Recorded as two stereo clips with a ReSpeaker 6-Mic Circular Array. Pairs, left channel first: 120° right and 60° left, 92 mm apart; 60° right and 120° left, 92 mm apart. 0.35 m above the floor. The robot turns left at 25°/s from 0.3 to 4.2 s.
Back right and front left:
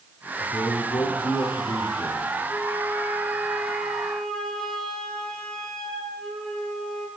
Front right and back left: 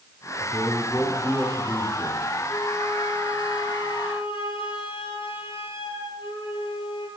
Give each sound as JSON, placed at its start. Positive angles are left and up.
{"t": 0.4, "sound": "a man speaking", "azimuth_deg": -115, "distance_m": 8.0}
{"t": 2.5, "sound": "a flute", "azimuth_deg": 5, "distance_m": 6.0}